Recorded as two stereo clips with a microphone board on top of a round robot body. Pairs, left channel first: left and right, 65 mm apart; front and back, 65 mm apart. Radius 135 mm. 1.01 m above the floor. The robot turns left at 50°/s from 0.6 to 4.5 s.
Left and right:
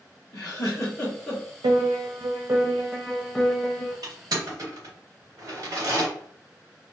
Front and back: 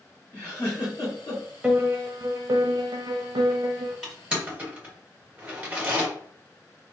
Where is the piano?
105° right, 0.6 m; by 3.9 s 140° left, 0.6 m.